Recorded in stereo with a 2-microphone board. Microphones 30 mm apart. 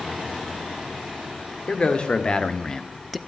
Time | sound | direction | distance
1.7 | a man speaking | 40° left (ahead or behind) | 1.6 m